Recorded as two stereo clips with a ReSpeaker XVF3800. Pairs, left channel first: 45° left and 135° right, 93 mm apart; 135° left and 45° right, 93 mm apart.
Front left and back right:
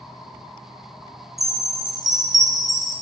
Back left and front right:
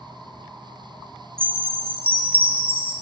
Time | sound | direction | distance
1.4 | a chime | 50° right | 1.4 m